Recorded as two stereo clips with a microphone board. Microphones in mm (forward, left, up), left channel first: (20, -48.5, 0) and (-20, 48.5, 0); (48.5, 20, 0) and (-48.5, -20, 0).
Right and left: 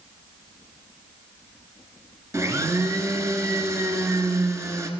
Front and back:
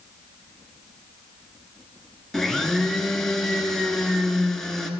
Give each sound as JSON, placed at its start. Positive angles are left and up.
{"t": 2.3, "sound": "a blender", "azimuth_deg": 105, "distance_m": 0.8}